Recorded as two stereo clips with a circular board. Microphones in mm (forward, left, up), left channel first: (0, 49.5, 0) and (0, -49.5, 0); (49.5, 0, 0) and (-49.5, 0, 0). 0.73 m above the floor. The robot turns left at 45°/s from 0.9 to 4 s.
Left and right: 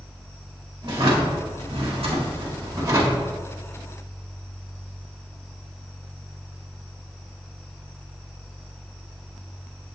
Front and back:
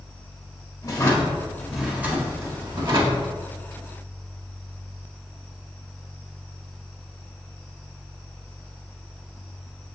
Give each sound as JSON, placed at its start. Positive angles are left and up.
{"t": 0.8, "sound": "a drawer", "azimuth_deg": -55, "distance_m": 1.4}